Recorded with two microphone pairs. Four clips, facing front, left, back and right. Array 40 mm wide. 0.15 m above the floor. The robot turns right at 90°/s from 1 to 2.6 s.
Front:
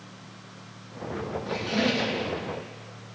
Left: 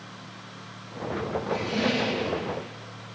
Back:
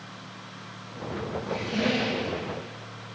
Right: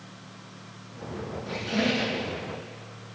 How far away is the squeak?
About 3.5 m.